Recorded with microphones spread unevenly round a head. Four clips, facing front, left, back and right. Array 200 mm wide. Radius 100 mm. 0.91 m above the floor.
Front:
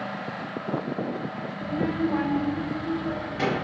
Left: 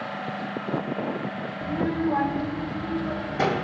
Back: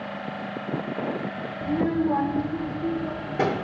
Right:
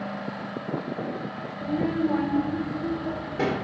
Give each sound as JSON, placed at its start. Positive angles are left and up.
{"t": 1.6, "sound": "a child speaking", "azimuth_deg": -170, "distance_m": 0.7}